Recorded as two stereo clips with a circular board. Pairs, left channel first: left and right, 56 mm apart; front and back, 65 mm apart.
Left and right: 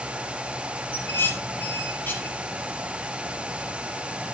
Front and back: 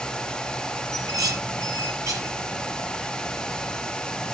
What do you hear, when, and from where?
0.9 s dishes clattering: 145° left, 4 m